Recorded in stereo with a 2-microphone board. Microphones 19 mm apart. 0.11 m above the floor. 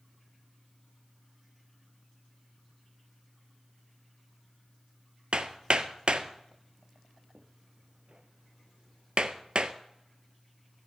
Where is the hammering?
55° right (ahead or behind), 0.6 m.